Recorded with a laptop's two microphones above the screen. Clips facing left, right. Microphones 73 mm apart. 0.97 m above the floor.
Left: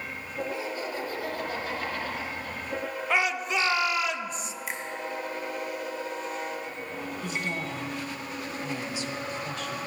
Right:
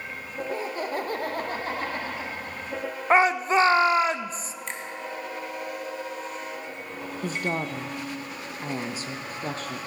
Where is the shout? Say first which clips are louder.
Right 8 dB; 35° right (ahead or behind), 0.6 m.